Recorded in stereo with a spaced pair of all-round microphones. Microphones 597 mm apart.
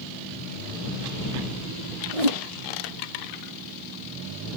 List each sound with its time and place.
2.1 s a whoosh: 75° right (ahead or behind)